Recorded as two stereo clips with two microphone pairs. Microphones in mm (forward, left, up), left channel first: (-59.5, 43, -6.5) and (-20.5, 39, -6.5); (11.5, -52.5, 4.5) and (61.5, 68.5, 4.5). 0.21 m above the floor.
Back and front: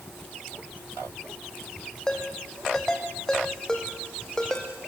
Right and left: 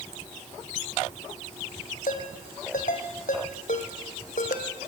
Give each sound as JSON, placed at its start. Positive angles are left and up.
{"t": 2.1, "sound": "a ringtone", "azimuth_deg": -110, "distance_m": 4.5}